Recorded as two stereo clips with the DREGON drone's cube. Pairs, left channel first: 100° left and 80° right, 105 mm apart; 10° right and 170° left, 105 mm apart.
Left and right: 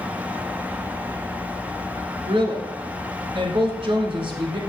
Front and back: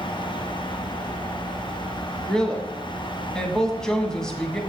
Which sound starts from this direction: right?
A woman speaking, at 2.3 s.